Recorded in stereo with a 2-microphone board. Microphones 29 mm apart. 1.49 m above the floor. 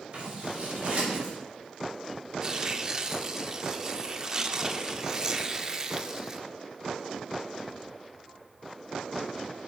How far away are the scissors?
About 3.5 m.